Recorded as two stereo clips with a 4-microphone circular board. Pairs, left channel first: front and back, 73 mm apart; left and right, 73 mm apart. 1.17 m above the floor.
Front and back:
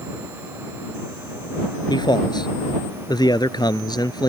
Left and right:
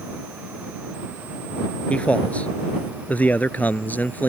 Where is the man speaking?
15° left; by 4.3 s 25° left.